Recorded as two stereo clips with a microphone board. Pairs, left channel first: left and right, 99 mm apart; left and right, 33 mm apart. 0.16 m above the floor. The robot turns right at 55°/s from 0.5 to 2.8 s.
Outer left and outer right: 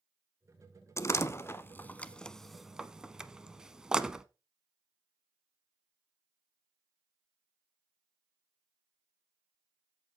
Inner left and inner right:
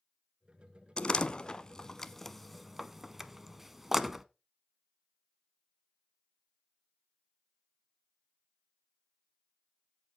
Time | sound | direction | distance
1.0 | a door slam | 30° left (ahead or behind) | 0.8 m